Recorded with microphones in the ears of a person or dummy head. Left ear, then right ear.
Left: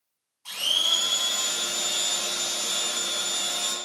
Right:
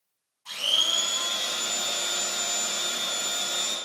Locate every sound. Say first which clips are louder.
0.5 s a blender: left 1 dB; 60° left (ahead or behind), 2.0 m